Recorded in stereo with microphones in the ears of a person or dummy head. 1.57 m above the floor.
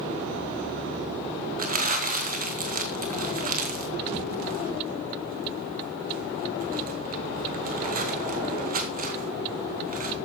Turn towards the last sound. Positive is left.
turn(degrees=-50)  # may be behind; listen again after turning